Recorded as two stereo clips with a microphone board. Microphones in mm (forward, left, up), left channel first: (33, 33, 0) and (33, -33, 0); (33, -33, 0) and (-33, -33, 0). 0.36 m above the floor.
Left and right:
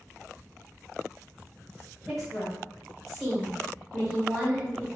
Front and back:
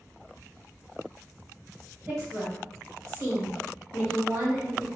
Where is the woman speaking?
175° left, 1.8 m.